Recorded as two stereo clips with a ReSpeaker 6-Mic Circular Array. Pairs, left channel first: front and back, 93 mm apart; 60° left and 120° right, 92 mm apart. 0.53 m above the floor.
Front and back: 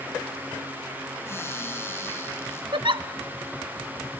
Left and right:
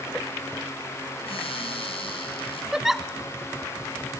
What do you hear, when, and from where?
1.3 s a cupboard door: 65° left, 4 m
2.7 s a giggle: 155° left, 0.6 m